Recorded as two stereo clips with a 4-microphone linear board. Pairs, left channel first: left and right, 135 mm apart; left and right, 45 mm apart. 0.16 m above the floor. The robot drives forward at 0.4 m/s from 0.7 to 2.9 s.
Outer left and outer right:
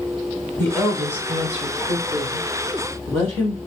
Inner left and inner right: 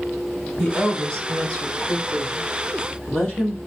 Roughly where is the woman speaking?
Centre.